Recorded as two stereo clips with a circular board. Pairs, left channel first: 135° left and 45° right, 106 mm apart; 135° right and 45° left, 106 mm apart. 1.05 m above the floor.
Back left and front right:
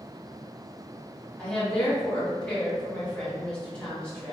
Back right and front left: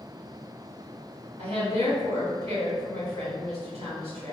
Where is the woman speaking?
55° left, 1.5 m.